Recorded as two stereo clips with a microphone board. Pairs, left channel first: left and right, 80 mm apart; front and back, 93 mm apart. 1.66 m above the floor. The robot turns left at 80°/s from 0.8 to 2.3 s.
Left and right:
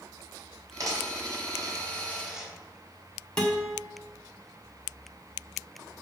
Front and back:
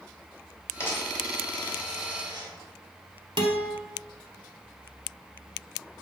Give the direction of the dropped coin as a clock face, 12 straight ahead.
2 o'clock.